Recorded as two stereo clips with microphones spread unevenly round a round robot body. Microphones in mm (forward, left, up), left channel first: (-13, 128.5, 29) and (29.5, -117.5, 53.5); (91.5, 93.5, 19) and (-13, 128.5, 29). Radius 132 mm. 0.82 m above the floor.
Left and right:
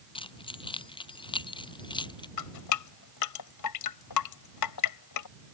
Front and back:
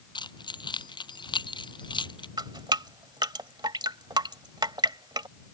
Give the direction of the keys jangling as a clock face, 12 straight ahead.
11 o'clock.